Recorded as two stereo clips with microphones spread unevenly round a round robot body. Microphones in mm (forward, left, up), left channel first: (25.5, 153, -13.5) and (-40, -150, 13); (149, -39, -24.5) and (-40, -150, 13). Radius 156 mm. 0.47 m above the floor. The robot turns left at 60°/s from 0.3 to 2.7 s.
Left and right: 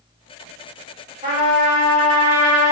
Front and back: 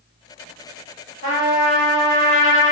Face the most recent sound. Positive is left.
turn(degrees=95)